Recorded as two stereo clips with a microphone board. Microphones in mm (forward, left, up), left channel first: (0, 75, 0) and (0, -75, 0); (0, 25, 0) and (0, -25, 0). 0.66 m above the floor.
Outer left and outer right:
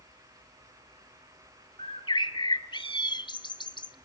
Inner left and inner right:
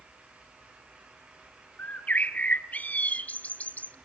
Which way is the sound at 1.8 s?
30° left (ahead or behind).